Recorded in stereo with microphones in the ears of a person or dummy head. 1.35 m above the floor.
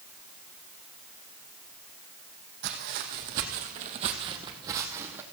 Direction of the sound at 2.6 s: 55° right (ahead or behind).